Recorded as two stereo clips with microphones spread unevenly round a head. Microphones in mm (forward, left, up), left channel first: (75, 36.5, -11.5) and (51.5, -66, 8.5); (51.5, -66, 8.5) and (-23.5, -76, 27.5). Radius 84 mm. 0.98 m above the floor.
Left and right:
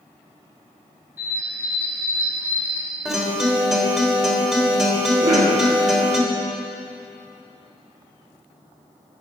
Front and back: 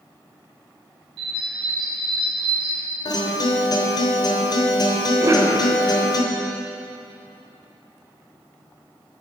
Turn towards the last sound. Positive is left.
turn(degrees=-125)